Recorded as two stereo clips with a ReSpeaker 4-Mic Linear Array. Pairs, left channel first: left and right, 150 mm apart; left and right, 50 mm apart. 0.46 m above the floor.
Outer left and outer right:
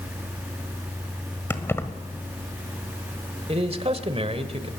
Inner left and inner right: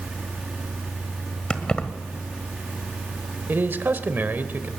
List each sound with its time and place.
1.5 s keys jangling: 15° left (ahead or behind), 1.4 m
3.5 s a man speaking: 40° right (ahead or behind), 1.5 m